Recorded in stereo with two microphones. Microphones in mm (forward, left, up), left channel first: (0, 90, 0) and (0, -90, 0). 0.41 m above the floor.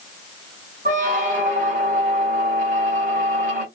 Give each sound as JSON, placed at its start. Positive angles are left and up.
{"t": 0.8, "sound": "a squeak", "side_deg": -45, "distance_m": 1.4}